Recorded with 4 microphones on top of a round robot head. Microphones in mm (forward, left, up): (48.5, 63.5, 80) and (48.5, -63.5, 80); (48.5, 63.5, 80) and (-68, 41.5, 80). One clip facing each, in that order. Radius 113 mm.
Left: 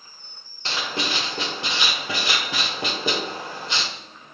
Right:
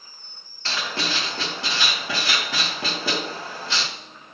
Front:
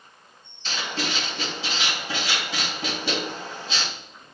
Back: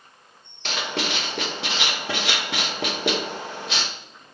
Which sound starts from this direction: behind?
Writing, at 0.7 s.